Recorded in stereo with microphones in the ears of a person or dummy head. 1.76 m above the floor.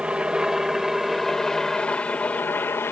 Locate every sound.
0.0 s a helicopter: 5° right (ahead or behind); by 2.9 s 15° left (ahead or behind)